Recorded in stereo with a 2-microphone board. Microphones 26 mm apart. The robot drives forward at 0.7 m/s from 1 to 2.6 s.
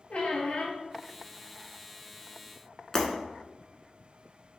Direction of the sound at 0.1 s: 55° left (ahead or behind).